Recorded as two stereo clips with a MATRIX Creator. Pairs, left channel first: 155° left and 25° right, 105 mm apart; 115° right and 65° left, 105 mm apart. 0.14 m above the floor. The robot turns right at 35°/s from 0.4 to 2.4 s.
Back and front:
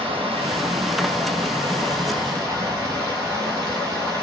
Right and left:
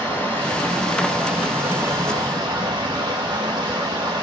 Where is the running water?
40° right, 2.5 m; by 4.2 s 30° left, 2.5 m.